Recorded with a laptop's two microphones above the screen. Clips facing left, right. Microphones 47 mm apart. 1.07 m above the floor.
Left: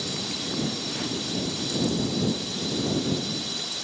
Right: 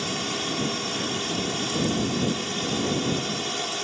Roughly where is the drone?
Right.